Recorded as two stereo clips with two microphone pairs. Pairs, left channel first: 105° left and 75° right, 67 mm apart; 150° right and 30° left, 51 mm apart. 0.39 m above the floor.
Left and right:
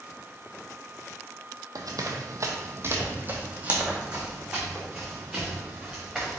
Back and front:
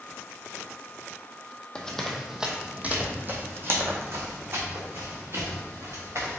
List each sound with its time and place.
1.8 s running footsteps: 75° right, 0.8 m; by 6.4 s 15° left, 2.5 m